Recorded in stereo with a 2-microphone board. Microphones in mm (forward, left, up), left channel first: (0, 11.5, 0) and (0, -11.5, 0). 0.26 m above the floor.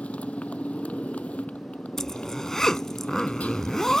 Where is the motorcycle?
85° left.